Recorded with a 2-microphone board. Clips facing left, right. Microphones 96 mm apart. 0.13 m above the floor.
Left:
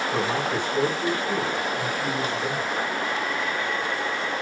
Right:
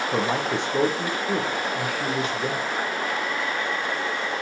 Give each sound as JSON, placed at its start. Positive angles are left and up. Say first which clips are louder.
{"t": 0.1, "sound": "a man speaking", "louder": "right 2 dB", "side_deg": -80, "distance_m": 8.5}